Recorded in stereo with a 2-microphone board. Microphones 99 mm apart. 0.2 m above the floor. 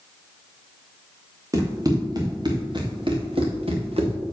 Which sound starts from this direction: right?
Running footsteps, at 1.5 s.